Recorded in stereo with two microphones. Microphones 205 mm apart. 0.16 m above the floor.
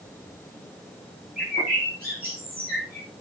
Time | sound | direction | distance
1.4 | a bird | 45° right (ahead or behind) | 7.5 m